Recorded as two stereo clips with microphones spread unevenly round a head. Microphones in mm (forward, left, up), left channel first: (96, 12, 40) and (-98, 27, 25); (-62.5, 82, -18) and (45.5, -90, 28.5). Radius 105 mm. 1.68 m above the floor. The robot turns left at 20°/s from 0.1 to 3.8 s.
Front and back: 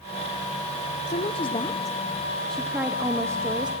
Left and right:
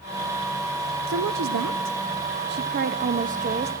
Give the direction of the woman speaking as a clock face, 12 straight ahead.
2 o'clock.